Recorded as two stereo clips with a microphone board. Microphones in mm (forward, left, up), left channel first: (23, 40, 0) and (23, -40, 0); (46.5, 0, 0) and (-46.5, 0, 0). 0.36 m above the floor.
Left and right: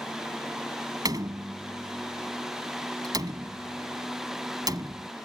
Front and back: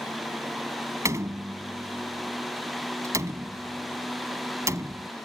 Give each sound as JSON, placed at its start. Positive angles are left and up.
{"t": 1.1, "sound": "a door slam", "azimuth_deg": -125}